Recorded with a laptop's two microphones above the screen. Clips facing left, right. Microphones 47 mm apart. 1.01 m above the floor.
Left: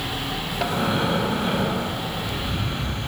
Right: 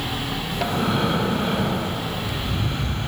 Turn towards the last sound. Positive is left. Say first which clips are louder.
# right 1 dB
turn(degrees=0)  # may be behind; listen again after turning